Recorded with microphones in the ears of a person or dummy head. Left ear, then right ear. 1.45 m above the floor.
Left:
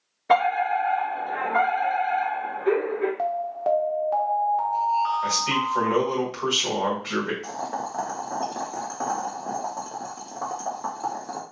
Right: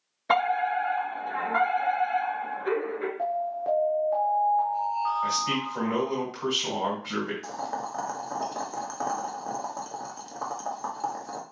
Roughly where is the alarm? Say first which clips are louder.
Left 3 dB; centre.